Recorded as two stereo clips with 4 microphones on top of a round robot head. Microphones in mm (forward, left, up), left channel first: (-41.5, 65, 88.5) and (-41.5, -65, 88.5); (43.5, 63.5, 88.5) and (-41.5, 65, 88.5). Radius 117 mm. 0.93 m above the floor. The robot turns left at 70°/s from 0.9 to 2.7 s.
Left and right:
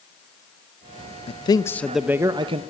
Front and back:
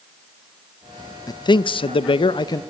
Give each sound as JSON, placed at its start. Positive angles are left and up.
{"t": 1.3, "sound": "a man speaking", "azimuth_deg": 45, "distance_m": 0.7}